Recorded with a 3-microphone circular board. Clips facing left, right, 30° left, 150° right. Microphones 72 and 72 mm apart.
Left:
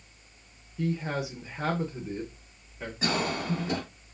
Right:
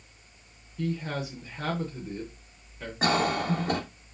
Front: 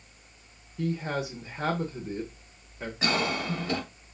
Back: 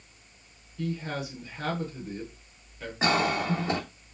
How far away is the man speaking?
About 0.8 m.